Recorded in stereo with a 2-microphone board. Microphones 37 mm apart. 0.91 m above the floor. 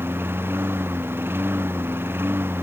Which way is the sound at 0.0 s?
85° right.